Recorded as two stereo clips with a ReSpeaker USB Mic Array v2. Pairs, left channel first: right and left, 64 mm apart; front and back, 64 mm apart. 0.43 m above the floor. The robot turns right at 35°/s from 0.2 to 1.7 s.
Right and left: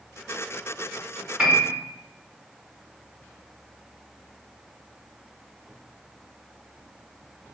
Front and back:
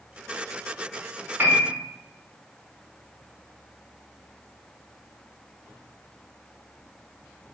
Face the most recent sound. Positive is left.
turn(degrees=165)